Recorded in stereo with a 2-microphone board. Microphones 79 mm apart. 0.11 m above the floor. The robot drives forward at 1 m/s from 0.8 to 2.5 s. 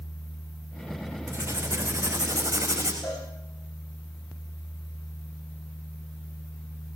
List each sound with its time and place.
1.3 s writing: 40° right (ahead or behind), 6.5 m; by 2.9 s 50° right (ahead or behind), 5.5 m
3.0 s a cowbell: 5° left (ahead or behind), 9.5 m